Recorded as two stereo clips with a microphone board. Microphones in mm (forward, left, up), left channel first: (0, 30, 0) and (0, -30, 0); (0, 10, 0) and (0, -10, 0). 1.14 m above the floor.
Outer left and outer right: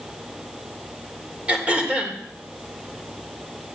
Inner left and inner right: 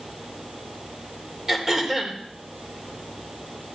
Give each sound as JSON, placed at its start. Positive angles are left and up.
{"t": 1.5, "sound": "throat clearing", "side_deg": -20, "distance_m": 3.0}